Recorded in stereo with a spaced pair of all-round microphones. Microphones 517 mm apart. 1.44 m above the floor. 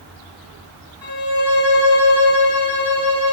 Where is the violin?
40° left (ahead or behind), 1.4 m.